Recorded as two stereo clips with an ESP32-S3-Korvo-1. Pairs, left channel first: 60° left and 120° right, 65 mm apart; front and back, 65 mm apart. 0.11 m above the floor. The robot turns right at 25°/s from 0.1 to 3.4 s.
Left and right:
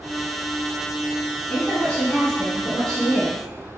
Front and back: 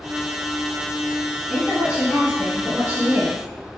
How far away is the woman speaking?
About 1.9 m.